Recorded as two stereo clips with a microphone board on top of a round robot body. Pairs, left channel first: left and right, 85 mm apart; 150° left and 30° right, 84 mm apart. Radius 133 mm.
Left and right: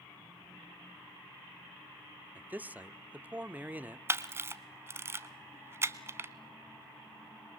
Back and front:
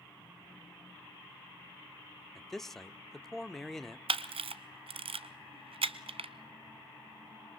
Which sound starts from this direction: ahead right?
A camera shutter, at 4.1 s.